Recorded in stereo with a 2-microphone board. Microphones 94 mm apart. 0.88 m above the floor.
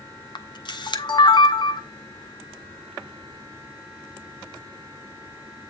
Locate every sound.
0.3 s a camera shutter: 50° left (ahead or behind), 0.7 m